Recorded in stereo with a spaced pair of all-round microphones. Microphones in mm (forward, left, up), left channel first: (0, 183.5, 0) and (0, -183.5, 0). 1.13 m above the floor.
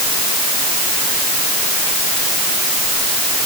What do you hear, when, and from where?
Only background noise.